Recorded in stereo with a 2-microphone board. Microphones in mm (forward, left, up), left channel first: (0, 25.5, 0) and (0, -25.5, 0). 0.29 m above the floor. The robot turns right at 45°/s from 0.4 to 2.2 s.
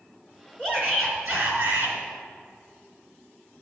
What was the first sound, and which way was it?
A shout, 150° right.